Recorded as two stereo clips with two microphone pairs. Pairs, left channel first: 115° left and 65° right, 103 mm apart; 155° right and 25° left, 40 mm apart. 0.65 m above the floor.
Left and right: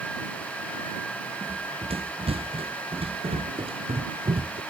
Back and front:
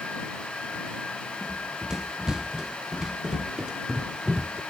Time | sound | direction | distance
1.4 | running footsteps | 50° right | ?